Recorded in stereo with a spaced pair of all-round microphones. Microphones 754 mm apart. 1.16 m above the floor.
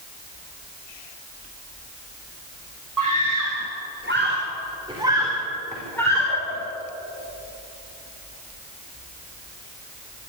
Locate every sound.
3.0 s a scream: 25° right (ahead or behind), 3 m; by 6.6 s 10° left (ahead or behind), 3.5 m